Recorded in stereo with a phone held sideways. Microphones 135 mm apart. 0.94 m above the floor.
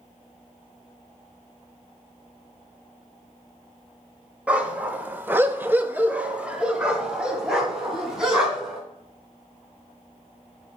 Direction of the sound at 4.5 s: 10° right (ahead or behind).